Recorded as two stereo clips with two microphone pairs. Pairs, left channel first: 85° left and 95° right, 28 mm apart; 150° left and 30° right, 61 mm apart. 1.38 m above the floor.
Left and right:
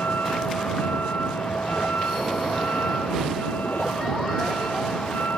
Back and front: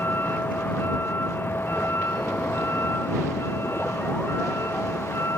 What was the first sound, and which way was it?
A vehicle, 95° left.